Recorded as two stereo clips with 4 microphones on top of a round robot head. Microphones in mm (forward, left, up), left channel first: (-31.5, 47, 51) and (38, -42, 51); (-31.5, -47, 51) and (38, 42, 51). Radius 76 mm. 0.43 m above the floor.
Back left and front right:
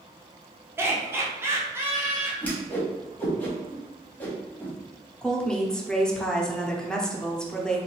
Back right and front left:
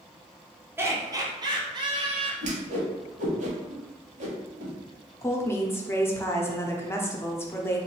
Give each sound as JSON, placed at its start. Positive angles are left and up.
{"t": 0.8, "sound": "laughter", "azimuth_deg": 0, "distance_m": 0.8}
{"t": 2.4, "sound": "a whoosh", "azimuth_deg": 50, "distance_m": 1.4}
{"t": 5.2, "sound": "a woman speaking", "azimuth_deg": -160, "distance_m": 0.8}